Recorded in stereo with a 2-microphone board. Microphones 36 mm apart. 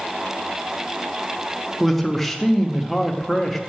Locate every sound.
1.8 s a man speaking: 5° left (ahead or behind), 0.8 m